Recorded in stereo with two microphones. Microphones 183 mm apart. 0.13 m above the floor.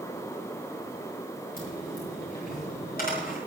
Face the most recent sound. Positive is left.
turn(degrees=50)  # may be behind; listen again after turning